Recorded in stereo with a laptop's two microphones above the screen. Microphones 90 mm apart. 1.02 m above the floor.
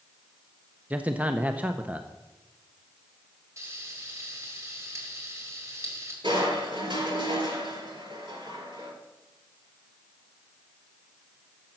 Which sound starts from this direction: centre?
A man speaking, at 0.9 s.